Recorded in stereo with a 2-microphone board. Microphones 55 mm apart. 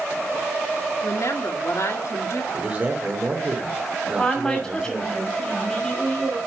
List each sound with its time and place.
1.0 s a woman speaking: 70° left (ahead or behind), 2 m
2.5 s a man speaking: 30° right (ahead or behind), 3 m
4.1 s a woman speaking: 10° left (ahead or behind), 7 m